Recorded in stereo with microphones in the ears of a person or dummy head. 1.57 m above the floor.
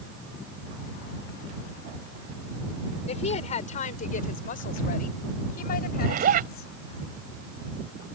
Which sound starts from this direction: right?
A zipper, at 6.0 s.